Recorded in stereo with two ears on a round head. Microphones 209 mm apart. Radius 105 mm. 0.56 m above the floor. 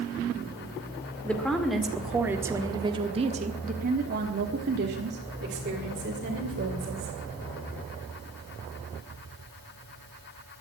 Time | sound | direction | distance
1.2 | a woman speaking | 5° left (ahead or behind) | 2.0 m